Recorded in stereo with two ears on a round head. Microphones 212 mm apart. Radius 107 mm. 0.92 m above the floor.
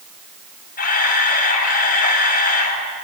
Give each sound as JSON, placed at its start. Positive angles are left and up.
{"t": 0.8, "sound": "a camera shutter", "side_deg": 40, "distance_m": 6.0}